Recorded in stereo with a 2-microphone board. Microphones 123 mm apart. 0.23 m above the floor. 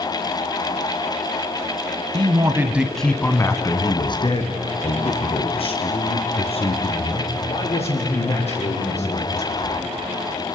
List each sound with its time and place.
2.1 s a man speaking: 40° right (ahead or behind), 1.4 m; by 9.9 s 60° left (ahead or behind), 9.5 m